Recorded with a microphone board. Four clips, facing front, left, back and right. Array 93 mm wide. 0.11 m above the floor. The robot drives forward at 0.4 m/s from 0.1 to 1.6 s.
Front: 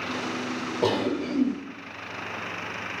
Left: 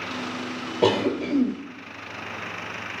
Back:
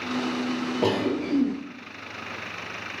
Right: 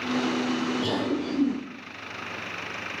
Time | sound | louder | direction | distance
0.8 | a cough | left 5 dB, even | 105° left | 2.5 m